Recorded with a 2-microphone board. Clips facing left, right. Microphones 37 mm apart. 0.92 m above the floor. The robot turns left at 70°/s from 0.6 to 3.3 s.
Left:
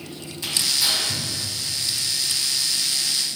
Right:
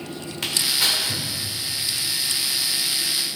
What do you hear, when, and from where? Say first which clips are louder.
0.4 s tearing paper: right 1 dB; 75° right (ahead or behind), 2.5 m; by 1.3 s 30° right (ahead or behind), 2.5 m